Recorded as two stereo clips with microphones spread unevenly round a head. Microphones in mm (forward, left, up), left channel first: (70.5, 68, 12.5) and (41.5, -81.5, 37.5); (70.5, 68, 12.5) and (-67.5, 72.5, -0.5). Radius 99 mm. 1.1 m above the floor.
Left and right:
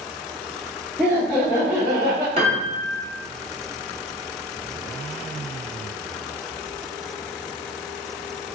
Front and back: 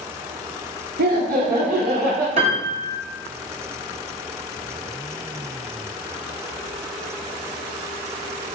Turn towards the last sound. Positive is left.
turn(degrees=-155)